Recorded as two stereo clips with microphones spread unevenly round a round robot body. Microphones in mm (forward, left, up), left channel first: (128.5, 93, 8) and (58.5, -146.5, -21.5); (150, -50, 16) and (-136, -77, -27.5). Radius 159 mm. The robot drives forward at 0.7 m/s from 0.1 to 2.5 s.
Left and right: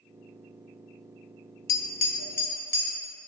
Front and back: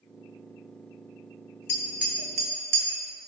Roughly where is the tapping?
Left.